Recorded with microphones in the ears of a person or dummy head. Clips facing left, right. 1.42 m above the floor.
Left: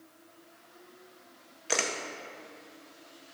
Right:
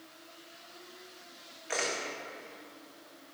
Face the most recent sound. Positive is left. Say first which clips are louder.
# left 2 dB
turn(degrees=50)  # may be behind; listen again after turning